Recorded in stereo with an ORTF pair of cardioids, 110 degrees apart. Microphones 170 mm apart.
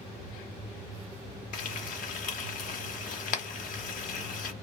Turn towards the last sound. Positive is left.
turn(degrees=60)